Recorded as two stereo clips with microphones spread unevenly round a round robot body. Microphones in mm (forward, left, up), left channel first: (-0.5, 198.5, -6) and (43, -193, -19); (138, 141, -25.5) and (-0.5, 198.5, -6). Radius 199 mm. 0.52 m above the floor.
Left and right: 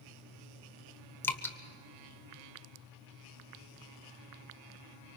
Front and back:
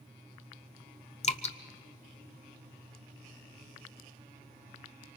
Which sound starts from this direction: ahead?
Dripping, at 1.2 s.